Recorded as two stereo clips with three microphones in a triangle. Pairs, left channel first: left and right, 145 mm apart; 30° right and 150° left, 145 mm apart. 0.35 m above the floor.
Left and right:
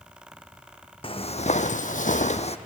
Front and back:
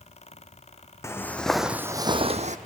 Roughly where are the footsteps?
Ahead left.